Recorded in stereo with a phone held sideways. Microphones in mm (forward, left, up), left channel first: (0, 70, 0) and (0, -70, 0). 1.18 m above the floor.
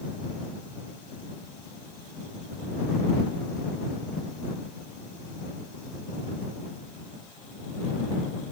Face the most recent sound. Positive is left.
No sound to turn to.